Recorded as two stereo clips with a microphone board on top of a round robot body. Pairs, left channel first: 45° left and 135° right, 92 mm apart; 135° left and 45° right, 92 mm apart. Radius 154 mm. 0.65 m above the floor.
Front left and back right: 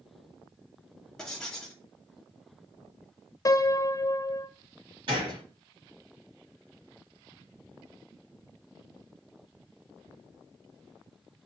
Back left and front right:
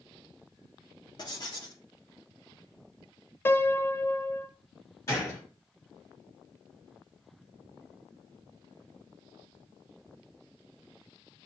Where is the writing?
125° left, 1.5 m.